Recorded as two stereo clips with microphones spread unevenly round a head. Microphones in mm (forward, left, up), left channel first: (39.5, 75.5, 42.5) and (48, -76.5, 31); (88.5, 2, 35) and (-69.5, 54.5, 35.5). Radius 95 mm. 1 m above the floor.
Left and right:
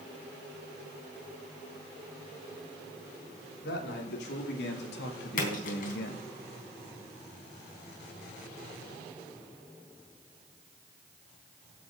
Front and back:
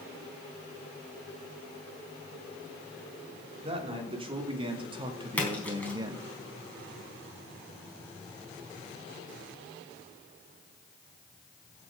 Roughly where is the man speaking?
Left.